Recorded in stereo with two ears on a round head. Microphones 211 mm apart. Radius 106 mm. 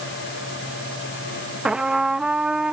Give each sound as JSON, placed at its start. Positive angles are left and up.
{"t": 1.6, "sound": "a trumpet", "side_deg": -5}